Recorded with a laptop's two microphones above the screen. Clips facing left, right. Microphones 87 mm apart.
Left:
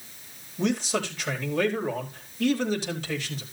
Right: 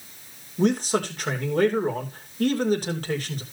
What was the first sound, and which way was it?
A man speaking, 45° right (ahead or behind).